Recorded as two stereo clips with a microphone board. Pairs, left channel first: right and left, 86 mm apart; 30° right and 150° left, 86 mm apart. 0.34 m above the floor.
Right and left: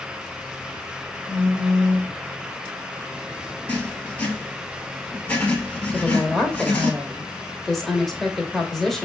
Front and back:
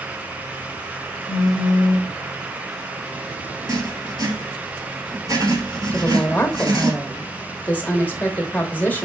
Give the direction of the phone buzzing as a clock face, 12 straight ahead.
5 o'clock.